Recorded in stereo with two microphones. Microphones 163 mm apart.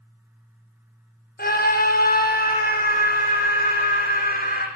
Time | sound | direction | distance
1.4 | a scream | 70° left (ahead or behind) | 3 m